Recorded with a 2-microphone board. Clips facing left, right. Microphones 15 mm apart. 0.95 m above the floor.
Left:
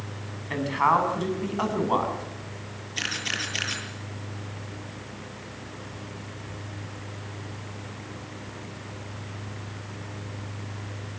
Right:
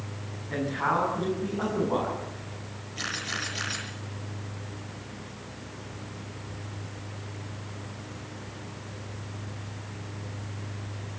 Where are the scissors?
No scissors in this recording.